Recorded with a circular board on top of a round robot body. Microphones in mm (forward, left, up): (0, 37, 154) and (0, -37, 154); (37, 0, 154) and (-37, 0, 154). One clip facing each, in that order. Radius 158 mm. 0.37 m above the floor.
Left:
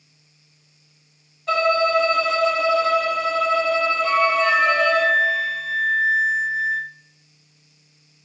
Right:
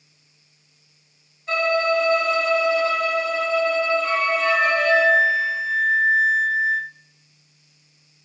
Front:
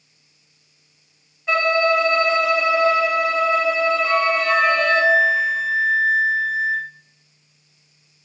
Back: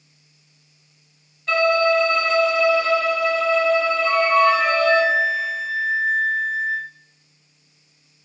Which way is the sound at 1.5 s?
75° left.